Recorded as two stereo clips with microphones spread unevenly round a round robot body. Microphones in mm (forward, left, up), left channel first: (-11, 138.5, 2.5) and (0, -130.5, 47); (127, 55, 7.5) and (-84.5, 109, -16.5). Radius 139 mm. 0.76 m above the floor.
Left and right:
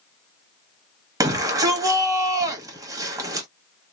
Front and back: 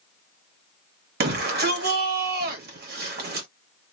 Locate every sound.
1.2 s a shout: 170° right, 1.1 m